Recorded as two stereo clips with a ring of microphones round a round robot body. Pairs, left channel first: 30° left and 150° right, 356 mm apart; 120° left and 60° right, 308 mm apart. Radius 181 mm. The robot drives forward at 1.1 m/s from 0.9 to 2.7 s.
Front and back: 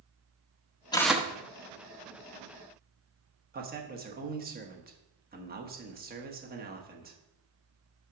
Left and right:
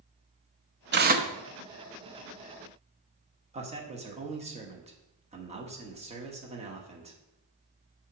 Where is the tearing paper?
40° right, 0.8 m; by 1.3 s 105° right, 0.7 m.